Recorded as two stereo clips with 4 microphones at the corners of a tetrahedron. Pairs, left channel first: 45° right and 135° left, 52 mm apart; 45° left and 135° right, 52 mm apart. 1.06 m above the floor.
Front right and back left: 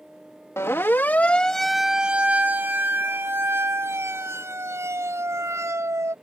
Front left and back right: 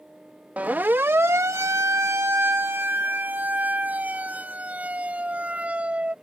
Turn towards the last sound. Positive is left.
turn(degrees=160)